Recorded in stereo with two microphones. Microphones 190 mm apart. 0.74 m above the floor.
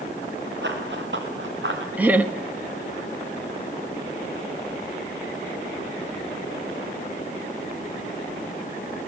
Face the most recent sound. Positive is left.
turn(degrees=-10)  # may be behind; listen again after turning